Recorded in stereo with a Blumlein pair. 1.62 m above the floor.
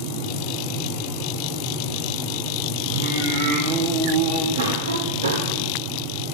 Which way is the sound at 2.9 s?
60° right.